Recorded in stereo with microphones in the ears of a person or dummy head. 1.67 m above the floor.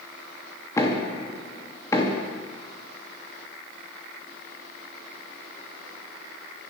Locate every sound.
0.8 s knocking: 20° left (ahead or behind), 2.5 m